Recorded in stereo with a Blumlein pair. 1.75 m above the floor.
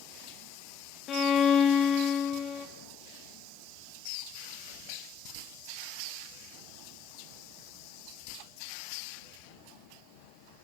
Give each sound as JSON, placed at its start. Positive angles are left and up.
{"t": 1.1, "sound": "a violin", "azimuth_deg": 30, "distance_m": 1.9}